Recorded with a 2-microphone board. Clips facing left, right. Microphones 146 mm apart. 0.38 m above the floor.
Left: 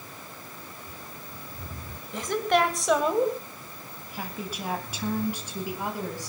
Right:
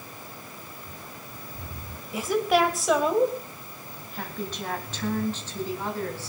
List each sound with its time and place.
2.1 s a woman speaking: 10° right (ahead or behind), 2 m; by 6.3 s 15° left (ahead or behind), 4 m